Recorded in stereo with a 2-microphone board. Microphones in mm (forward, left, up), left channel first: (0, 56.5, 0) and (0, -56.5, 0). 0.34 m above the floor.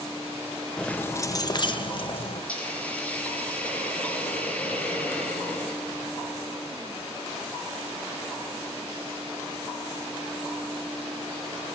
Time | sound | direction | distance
0.8 | keys jangling | 5° left (ahead or behind) | 0.6 m
2.5 | a hiss | 10° left (ahead or behind) | 5.5 m